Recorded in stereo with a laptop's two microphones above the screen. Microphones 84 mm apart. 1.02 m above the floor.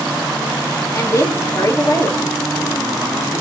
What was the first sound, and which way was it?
A woman speaking, 40° left (ahead or behind).